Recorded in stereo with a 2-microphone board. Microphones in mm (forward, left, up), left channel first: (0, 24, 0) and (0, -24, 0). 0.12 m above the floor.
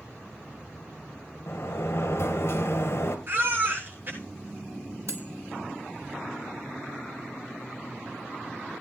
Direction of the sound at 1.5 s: 60° left (ahead or behind).